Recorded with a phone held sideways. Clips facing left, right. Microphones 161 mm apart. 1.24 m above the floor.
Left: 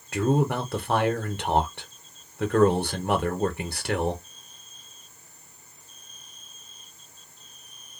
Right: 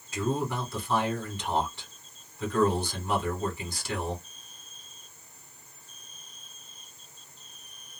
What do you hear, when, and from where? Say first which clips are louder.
0.1 s a man speaking: left 6 dB; 65° left (ahead or behind), 0.8 m